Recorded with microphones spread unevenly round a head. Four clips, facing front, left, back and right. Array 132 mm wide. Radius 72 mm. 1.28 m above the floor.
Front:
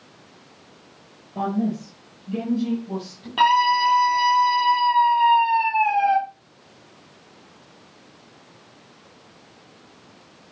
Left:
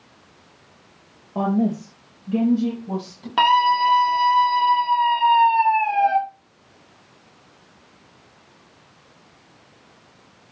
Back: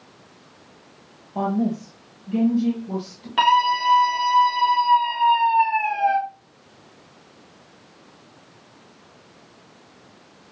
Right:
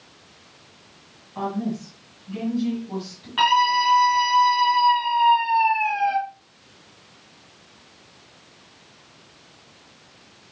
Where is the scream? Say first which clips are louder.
Left 2 dB, even; 80° left, 4.5 m.